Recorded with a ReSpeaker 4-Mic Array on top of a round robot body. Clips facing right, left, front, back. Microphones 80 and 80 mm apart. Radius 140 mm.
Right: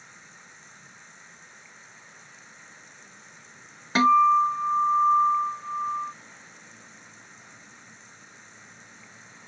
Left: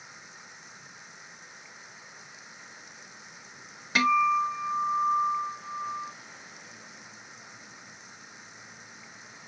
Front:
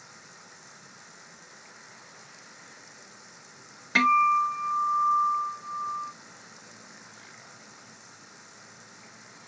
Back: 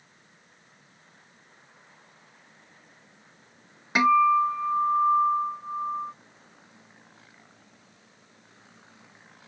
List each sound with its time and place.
0.0 s running water: 10° left
4.0 s a guitar: 115° right